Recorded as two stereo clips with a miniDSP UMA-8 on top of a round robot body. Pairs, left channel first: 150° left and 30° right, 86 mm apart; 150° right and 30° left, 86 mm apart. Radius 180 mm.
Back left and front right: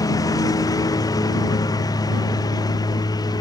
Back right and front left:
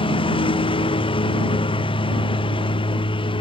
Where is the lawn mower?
165° right.